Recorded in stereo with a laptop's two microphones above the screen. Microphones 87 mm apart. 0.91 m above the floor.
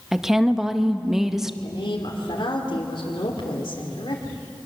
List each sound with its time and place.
0.1 s a woman speaking: 5° right (ahead or behind), 0.9 m
1.6 s a woman speaking: 75° left (ahead or behind), 2.5 m